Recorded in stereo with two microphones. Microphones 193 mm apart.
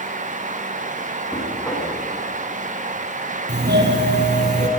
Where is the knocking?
10° left (ahead or behind), 8 m.